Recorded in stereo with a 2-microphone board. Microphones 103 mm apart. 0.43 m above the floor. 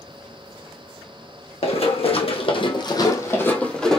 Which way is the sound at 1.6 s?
75° left (ahead or behind).